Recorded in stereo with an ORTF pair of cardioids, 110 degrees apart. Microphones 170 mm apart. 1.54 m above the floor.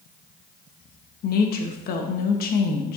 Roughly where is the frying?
No frying in this recording.